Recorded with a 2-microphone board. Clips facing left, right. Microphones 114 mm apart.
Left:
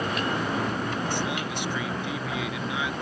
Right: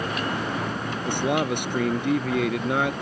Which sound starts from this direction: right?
A man speaking, at 1.1 s.